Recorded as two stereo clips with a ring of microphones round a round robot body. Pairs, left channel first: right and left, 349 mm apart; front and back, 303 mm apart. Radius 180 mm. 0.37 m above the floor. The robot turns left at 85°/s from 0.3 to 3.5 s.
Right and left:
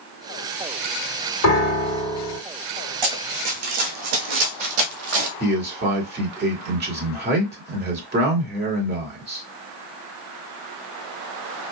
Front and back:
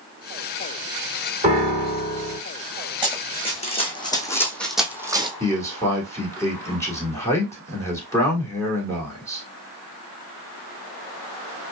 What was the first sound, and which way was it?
A piano, 115° right.